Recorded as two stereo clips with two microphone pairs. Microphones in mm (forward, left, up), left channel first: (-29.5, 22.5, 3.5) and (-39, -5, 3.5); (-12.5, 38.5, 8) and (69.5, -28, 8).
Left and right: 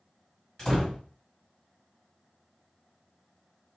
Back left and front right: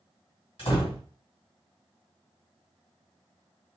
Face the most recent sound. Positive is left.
turn(degrees=135)